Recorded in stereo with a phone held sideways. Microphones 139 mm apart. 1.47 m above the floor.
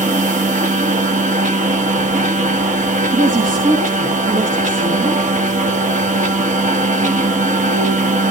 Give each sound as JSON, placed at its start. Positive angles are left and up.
{"t": 0.0, "sound": "a machine running", "side_deg": -65, "distance_m": 1.6}
{"t": 3.1, "sound": "a woman speaking", "side_deg": -80, "distance_m": 2.0}